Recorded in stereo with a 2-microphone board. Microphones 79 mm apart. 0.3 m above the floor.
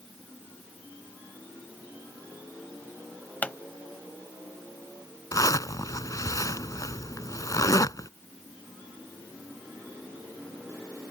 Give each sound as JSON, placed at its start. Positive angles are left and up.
{"t": 3.4, "sound": "a pop", "side_deg": 15}
{"t": 5.3, "sound": "a zipper", "side_deg": 50}